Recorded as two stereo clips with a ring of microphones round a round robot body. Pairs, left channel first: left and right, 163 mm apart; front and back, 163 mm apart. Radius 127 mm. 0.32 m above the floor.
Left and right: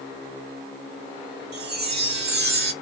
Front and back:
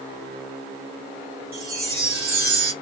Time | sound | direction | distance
1.5 | a chime | 130° right | 1.2 m